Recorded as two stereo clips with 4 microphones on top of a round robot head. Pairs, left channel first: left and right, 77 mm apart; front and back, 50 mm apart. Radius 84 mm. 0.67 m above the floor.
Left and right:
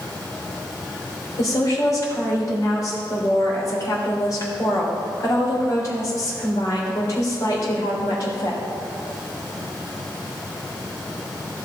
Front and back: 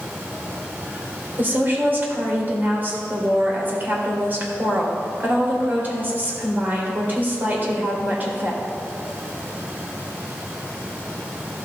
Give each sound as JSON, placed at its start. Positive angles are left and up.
{"t": 1.4, "sound": "a woman speaking", "azimuth_deg": 135, "distance_m": 3.0}